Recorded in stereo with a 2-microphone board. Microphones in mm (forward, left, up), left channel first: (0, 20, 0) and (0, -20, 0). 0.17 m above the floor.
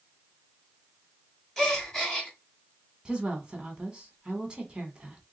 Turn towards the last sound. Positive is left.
turn(degrees=-20)  # may be behind; listen again after turning